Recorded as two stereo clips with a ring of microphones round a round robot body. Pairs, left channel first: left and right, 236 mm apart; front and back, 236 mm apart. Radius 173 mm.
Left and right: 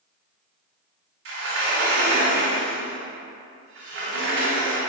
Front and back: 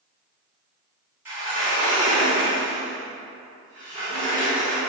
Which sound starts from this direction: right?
A sliding door, at 1.2 s.